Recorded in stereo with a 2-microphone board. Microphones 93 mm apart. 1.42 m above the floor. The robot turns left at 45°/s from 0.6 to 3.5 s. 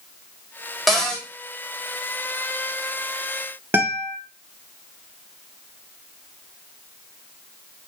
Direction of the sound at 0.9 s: Centre (ahead or behind).